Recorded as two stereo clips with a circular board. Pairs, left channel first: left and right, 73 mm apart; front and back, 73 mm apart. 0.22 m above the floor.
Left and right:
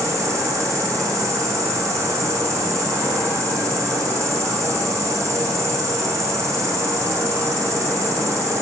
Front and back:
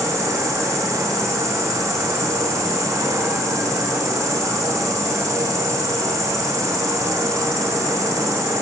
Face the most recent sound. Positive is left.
turn(degrees=-135)